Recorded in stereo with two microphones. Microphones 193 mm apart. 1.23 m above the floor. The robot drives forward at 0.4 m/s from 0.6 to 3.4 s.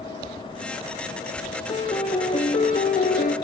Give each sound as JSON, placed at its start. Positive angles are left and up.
{"t": 1.7, "sound": "a piano", "side_deg": 30, "distance_m": 1.3}